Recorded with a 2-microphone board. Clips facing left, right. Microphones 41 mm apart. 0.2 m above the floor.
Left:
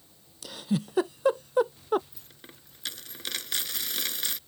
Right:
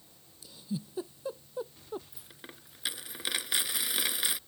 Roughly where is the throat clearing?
I don't hear throat clearing.